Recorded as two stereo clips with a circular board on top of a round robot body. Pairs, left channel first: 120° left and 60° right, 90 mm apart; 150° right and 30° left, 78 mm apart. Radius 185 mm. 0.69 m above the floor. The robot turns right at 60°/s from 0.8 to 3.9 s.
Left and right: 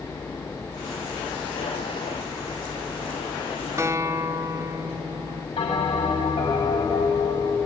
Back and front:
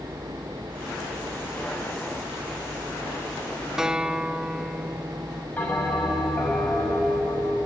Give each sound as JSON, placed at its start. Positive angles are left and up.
{"t": 3.8, "sound": "a guitar", "azimuth_deg": -50, "distance_m": 1.1}
{"t": 5.6, "sound": "a bell", "azimuth_deg": 140, "distance_m": 5.5}